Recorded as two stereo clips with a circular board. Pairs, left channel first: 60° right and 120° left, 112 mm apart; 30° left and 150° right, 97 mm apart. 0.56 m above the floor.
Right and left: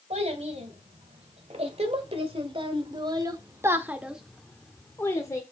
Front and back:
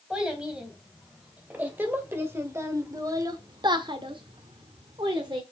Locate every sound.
0.1 s a child speaking: 130° left, 3 m; by 5.4 s 115° right, 1.5 m